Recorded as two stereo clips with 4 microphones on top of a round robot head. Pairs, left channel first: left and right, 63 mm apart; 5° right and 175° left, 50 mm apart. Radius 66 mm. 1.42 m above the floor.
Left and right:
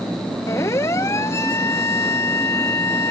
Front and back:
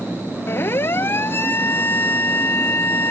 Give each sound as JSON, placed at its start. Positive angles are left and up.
{"t": 0.5, "sound": "a siren", "azimuth_deg": 35}